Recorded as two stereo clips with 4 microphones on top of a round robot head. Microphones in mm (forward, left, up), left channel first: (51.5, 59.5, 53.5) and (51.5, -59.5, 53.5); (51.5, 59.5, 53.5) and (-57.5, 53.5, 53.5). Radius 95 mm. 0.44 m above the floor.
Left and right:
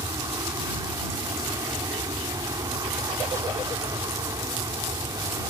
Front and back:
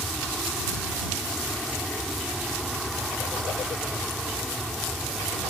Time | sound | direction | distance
0.0 | an aircraft | 85° right | ?